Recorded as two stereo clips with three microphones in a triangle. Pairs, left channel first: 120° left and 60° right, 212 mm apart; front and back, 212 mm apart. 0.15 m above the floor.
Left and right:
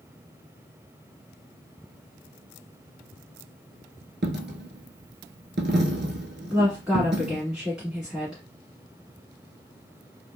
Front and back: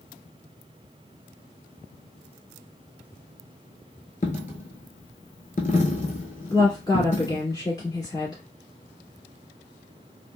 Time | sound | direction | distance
4.2 | a dropped coin | 45° right | 0.6 m
6.5 | a woman speaking | 15° left | 1.3 m